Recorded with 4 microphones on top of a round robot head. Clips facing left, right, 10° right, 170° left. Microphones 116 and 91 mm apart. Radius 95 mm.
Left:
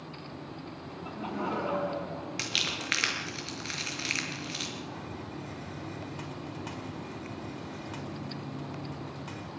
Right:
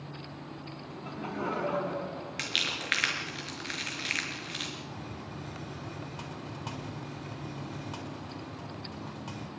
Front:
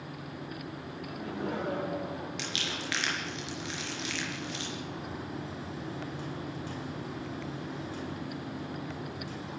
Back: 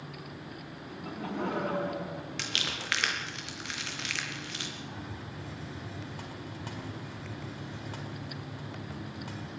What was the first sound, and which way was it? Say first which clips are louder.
Laughter: left 1 dB, back 4 dB; 160° left.